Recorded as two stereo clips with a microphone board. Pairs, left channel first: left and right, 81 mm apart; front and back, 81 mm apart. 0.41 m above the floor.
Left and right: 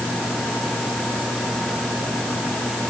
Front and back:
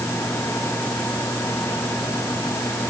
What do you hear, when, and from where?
Only background noise.